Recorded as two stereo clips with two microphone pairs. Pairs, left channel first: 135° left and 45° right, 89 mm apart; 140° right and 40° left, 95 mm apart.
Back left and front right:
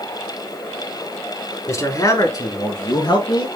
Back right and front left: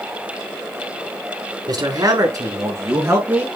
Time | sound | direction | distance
1.7 | a man speaking | 85° left | 4.5 m